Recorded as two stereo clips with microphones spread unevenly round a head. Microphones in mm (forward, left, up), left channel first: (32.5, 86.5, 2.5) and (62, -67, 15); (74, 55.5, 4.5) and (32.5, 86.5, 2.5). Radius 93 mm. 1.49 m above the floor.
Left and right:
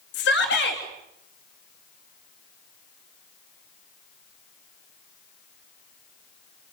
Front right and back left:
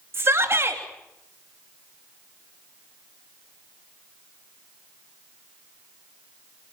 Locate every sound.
0.1 s a shout: 110° left, 3 m